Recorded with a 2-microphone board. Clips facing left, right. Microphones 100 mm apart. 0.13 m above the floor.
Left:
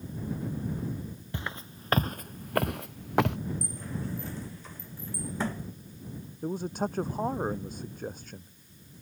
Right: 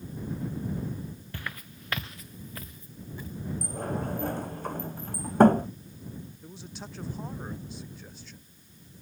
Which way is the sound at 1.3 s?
20° left (ahead or behind).